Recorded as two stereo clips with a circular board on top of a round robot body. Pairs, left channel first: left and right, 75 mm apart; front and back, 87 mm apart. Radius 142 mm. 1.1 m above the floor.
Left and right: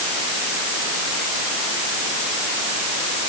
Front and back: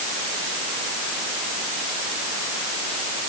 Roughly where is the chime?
I don't hear a chime.